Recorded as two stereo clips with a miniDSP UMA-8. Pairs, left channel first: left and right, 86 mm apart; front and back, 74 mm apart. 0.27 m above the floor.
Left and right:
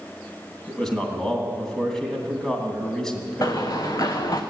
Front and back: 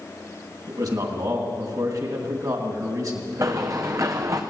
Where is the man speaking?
170° left, 2.5 m.